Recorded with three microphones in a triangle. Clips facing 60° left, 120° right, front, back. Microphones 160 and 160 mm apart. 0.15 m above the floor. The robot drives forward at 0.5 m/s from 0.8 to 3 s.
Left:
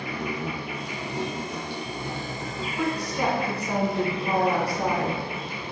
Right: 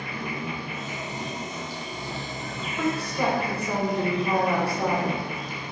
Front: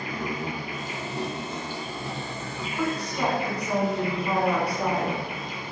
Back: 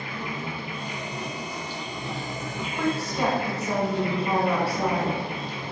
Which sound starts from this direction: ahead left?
An insect, at 0.0 s.